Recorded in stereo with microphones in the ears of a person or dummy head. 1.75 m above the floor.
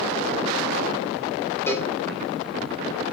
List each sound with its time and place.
1.7 s a cowbell: 15° left (ahead or behind), 1.8 m